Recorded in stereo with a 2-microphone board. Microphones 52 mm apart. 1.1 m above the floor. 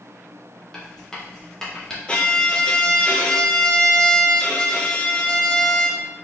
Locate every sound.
0.7 s writing: 15° left (ahead or behind), 1.0 m
2.1 s a violin: 25° left (ahead or behind), 0.5 m